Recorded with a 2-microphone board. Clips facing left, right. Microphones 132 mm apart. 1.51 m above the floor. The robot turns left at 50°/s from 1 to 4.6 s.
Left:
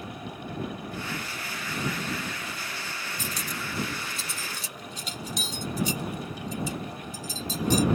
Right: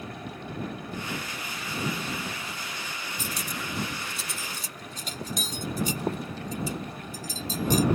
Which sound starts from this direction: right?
Cutlery clinking, at 3.2 s.